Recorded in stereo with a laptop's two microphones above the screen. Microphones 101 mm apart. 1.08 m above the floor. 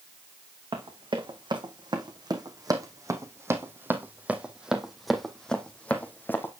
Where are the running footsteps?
55° right (ahead or behind), 3 m; by 6.5 s 20° left (ahead or behind), 2.5 m.